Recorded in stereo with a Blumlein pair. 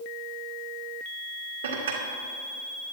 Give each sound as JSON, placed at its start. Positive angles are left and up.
{"t": 1.6, "sound": "dishes clattering", "azimuth_deg": -60, "distance_m": 1.9}